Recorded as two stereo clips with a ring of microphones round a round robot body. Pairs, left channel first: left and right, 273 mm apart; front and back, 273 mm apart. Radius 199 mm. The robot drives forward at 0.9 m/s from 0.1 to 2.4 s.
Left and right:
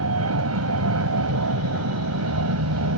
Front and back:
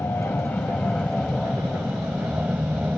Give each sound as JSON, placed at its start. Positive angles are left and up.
{"t": 0.0, "sound": "an aircraft", "azimuth_deg": -85}